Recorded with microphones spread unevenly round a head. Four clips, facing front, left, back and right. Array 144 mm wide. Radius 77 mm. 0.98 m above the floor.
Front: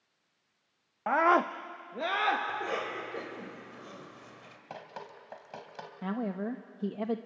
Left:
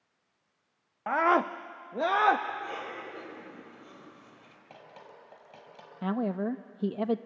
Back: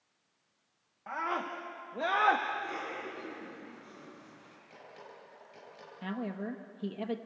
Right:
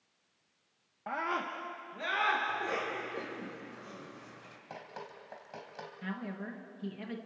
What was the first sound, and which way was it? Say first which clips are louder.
A scream: left 10 dB, front 10 dB; 15° left.